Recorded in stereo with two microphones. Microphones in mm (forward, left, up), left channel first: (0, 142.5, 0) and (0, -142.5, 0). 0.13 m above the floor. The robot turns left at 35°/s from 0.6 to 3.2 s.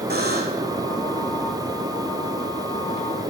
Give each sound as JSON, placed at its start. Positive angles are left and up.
{"t": 0.1, "sound": "a buzzer", "side_deg": -35, "distance_m": 2.5}